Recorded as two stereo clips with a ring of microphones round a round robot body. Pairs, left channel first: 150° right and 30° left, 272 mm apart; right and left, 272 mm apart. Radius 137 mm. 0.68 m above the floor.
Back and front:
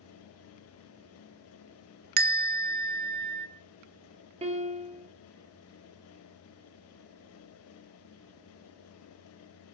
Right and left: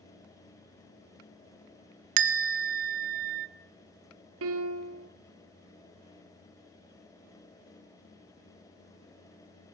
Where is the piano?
90° left, 1.8 m.